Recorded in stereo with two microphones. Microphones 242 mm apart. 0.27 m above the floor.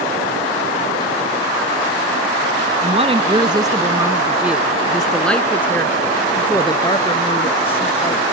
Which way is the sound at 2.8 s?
25° right (ahead or behind).